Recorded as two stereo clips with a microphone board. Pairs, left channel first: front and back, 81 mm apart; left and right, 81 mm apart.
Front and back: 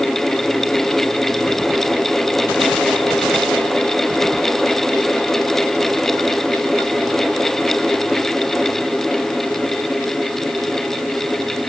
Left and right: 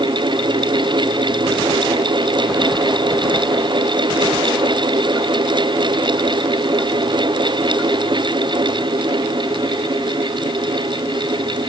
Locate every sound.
Only background noise.